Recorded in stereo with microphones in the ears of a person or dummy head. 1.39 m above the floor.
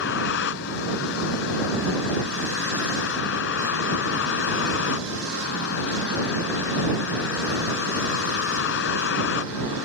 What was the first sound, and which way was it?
A vehicle, 70° left (ahead or behind).